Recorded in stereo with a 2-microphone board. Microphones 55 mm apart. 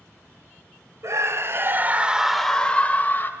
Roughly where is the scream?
Right.